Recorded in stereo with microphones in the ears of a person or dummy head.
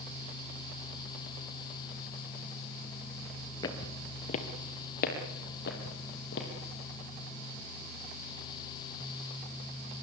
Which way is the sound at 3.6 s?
30° left (ahead or behind).